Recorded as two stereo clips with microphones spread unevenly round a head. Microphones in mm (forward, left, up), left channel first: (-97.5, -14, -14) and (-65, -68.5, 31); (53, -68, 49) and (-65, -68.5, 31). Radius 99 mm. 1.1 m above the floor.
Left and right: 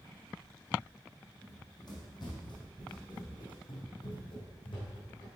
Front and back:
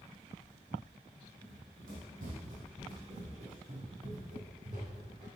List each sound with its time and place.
1.4 s running footsteps: 155° left, 3 m; by 5.3 s 115° left, 3.5 m